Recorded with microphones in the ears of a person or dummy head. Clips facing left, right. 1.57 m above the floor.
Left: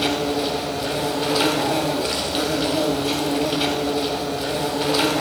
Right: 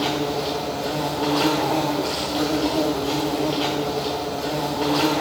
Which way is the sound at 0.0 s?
30° left (ahead or behind).